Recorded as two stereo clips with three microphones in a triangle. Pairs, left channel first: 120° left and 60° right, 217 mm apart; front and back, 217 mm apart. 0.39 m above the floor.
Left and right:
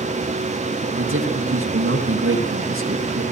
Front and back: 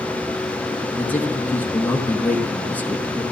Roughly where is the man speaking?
Right.